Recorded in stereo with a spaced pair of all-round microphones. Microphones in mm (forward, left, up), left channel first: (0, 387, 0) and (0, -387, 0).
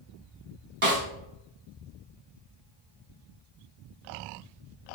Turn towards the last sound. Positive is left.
turn(degrees=-40)  # may be behind; listen again after turning